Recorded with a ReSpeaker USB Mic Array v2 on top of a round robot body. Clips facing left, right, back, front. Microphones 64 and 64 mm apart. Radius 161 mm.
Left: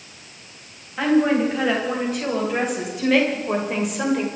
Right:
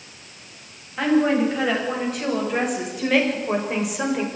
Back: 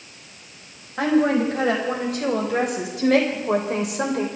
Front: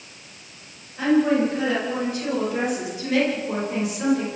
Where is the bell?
I don't hear a bell.